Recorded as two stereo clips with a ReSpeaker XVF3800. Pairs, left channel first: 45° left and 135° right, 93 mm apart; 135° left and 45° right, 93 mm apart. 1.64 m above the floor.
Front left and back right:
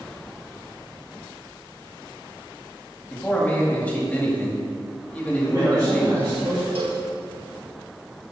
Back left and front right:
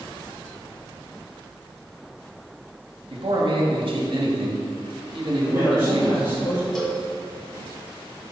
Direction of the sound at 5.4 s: 175° left.